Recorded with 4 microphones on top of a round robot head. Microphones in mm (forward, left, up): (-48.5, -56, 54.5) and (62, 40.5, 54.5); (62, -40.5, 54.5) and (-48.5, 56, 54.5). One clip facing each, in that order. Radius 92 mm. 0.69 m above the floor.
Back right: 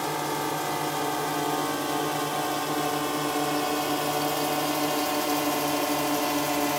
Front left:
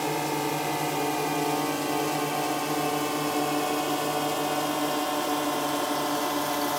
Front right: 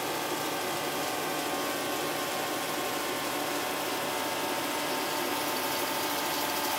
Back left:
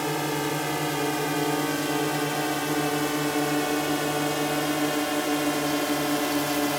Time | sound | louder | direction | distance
0.0 | a drone | front left 1 dB, back left 6 dB | 115° left | ?